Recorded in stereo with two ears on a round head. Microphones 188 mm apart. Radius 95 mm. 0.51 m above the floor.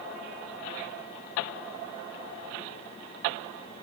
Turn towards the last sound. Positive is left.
No sound to turn to.